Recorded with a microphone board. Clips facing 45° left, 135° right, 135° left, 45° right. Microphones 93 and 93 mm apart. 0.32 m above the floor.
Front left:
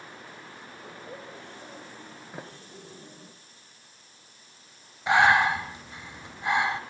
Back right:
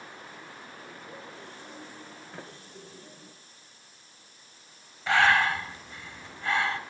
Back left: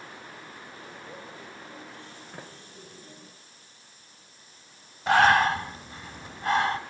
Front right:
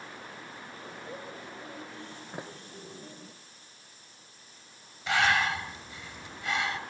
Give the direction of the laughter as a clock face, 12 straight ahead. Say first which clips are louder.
Front left 4 dB, front right 3 dB; 11 o'clock.